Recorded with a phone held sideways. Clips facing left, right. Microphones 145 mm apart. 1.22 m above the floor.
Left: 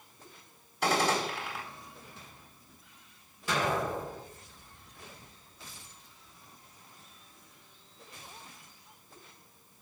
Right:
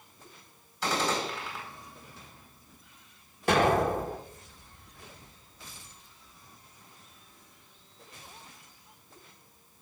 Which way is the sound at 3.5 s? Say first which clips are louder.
Right 7 dB; 65° right (ahead or behind).